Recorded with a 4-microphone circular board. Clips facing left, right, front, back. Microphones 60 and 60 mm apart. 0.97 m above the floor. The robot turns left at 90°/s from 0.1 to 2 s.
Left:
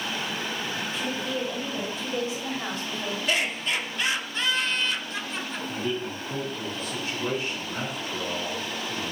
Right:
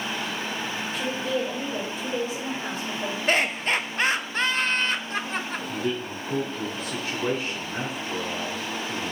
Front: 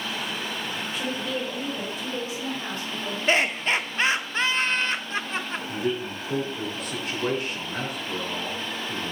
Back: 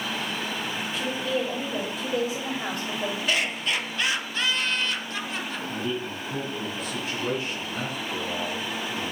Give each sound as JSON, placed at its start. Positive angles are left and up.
{"t": 0.9, "sound": "a woman speaking", "azimuth_deg": -55, "distance_m": 3.5}
{"t": 3.3, "sound": "laughter", "azimuth_deg": -50, "distance_m": 0.7}
{"t": 5.7, "sound": "a man speaking", "azimuth_deg": -35, "distance_m": 4.0}